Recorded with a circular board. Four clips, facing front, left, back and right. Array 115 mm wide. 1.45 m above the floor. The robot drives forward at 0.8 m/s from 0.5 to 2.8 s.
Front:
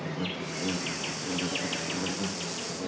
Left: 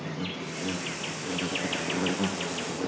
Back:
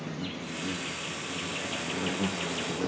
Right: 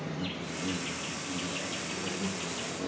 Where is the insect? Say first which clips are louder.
Left 2 dB, front 3 dB; 30° left, 1.4 m; by 2.9 s 135° left, 1.0 m.